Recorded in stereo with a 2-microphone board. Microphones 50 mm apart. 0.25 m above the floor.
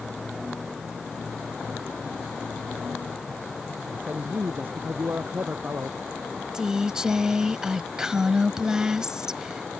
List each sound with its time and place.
3.9 s a man speaking: 45° right (ahead or behind)
6.5 s a woman speaking: 15° right (ahead or behind)